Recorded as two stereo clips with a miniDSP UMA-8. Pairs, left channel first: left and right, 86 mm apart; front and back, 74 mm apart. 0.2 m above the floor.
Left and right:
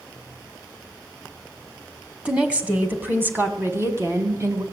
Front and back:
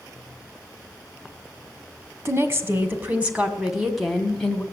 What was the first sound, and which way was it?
A woman speaking, 160° right.